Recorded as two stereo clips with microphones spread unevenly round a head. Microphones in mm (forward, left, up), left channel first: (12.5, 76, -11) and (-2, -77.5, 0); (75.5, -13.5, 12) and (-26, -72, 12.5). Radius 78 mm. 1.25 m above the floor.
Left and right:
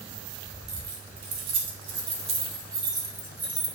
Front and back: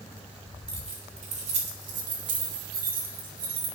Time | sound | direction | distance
0.7 | keys jangling | 115° right | 2.5 m